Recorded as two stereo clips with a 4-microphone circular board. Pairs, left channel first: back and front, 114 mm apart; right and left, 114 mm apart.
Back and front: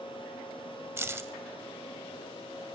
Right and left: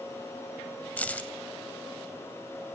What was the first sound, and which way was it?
Keys jangling, 30° right.